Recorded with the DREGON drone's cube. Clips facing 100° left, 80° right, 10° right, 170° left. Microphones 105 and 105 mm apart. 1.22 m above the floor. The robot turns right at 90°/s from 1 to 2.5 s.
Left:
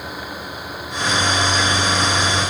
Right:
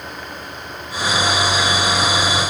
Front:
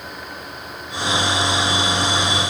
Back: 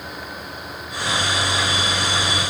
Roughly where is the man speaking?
I don't hear a man speaking.